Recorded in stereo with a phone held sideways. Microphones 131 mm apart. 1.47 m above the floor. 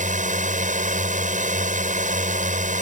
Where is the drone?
75° right (ahead or behind).